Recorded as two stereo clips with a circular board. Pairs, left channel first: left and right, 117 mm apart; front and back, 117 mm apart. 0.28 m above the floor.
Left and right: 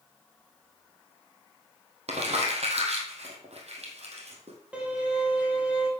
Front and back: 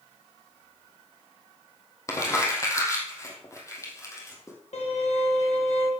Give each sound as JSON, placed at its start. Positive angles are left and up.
{"t": 2.1, "sound": "crumpling", "azimuth_deg": -65, "distance_m": 3.0}
{"t": 4.7, "sound": "a violin", "azimuth_deg": -10, "distance_m": 3.0}